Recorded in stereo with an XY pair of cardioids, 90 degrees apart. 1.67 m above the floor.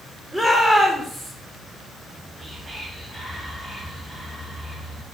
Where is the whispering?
15° right, 3 m.